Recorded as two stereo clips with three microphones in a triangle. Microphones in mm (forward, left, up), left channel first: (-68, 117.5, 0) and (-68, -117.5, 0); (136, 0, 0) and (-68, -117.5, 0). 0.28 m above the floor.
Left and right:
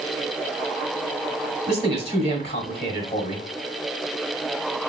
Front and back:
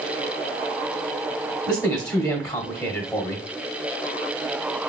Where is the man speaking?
90° left, 1.2 m.